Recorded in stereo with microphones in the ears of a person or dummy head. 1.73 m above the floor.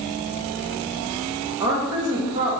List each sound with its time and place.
1.6 s a woman speaking: 15° right (ahead or behind), 0.7 m